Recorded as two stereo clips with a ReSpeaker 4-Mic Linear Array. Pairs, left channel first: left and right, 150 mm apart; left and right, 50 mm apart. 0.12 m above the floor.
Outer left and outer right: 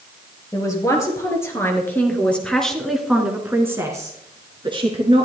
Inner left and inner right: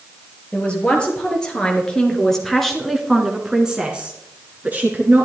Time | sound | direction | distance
0.5 | a man speaking | 20° left (ahead or behind) | 3 m